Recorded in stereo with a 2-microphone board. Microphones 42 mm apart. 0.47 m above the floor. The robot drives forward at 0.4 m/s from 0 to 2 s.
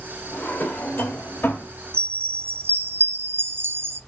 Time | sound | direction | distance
0.3 | a drawer | 45° left (ahead or behind) | 1.5 m
1.9 | a chime | 55° right (ahead or behind) | 0.5 m